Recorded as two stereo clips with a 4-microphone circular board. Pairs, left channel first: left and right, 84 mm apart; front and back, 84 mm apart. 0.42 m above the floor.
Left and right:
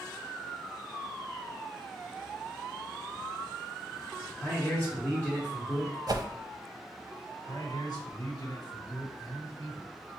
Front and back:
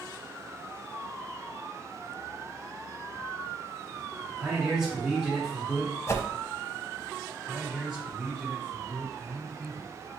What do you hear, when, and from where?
4.4 s a man speaking: 105° left, 1.3 m
6.1 s a whoosh: 50° right, 0.5 m
7.5 s a man speaking: 100° left, 1.9 m